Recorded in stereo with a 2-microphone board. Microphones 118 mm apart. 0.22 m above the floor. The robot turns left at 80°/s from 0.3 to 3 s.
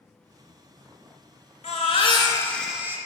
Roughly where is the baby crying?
Left.